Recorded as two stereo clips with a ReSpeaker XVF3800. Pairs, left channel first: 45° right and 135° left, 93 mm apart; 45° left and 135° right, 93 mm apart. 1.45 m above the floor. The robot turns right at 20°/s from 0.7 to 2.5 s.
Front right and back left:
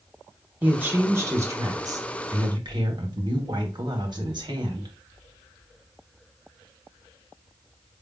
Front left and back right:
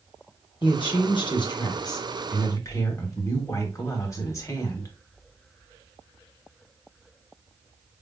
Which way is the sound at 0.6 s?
65° left.